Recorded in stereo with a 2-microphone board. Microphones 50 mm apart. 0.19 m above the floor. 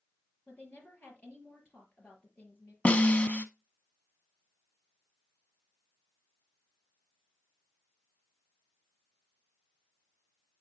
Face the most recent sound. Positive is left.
turn(degrees=30)  # may be behind; listen again after turning